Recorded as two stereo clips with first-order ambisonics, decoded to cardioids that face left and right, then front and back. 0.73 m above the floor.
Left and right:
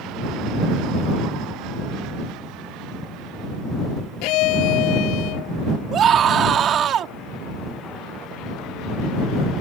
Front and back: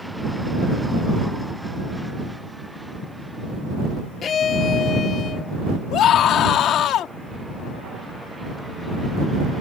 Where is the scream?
40° right.